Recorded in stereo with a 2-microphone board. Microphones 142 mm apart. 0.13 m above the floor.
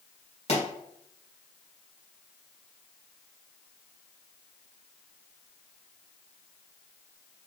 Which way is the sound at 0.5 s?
45° left (ahead or behind).